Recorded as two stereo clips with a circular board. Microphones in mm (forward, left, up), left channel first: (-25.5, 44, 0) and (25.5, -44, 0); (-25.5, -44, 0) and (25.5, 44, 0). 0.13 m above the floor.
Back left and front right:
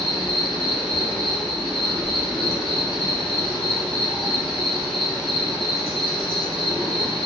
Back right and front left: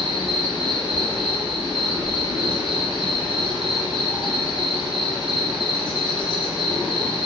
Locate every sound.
0.0 s an insect: 150° right, 1.4 m